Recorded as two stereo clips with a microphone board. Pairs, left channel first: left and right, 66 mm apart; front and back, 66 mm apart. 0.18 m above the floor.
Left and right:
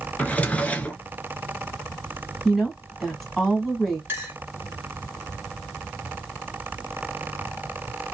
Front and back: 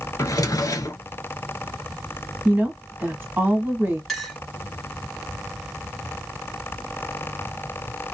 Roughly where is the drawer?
Ahead.